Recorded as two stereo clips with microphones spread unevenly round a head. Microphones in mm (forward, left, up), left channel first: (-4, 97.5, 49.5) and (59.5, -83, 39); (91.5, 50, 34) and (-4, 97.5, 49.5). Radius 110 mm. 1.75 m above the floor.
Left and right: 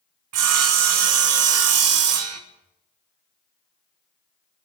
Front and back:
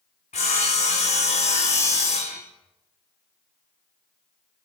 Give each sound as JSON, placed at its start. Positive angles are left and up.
{"t": 0.3, "sound": "sawing", "azimuth_deg": -85, "distance_m": 1.2}